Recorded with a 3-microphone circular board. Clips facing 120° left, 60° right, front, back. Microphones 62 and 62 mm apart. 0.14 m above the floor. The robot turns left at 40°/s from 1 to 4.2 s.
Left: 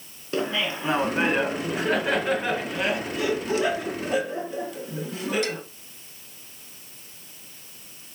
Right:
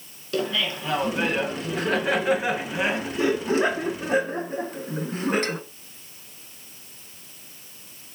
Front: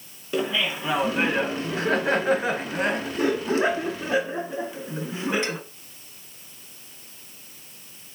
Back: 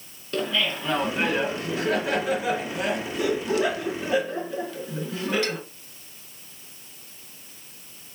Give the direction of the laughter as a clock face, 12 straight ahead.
10 o'clock.